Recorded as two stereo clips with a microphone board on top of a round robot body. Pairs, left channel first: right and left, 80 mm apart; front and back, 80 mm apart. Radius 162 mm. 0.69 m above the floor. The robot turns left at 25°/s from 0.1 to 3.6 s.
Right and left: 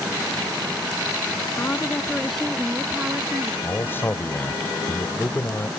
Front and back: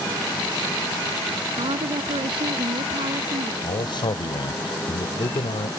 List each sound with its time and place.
1.6 s a woman speaking: 160° right; by 3.5 s 150° left
3.6 s a man speaking: 25° right